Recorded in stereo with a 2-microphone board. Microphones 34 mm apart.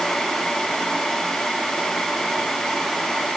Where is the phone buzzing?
No phone buzzing in this recording.